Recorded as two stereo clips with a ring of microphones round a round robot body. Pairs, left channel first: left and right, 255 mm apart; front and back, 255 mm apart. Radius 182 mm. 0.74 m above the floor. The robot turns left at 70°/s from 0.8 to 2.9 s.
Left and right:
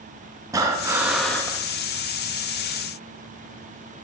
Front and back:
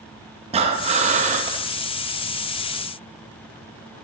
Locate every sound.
0.5 s breathing: 150° right, 0.7 m; by 1.6 s 155° left, 0.7 m